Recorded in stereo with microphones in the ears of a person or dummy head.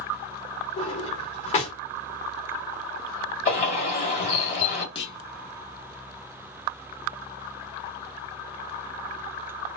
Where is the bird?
40° left (ahead or behind), 2 m.